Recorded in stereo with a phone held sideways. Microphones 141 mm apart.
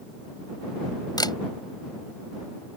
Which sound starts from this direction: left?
A camera shutter, at 1.2 s.